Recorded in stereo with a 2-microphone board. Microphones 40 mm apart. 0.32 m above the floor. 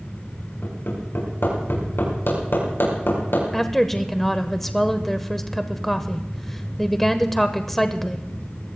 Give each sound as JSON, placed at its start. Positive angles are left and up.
{"t": 0.6, "sound": "hammering", "side_deg": 70, "distance_m": 6.5}
{"t": 3.5, "sound": "a woman speaking", "side_deg": 5, "distance_m": 0.8}